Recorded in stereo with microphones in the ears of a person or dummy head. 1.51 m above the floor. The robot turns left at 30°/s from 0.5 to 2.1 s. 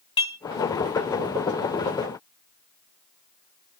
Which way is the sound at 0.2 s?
30° left (ahead or behind).